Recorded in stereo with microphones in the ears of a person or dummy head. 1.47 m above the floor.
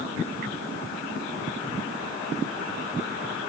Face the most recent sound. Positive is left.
No sound to turn to.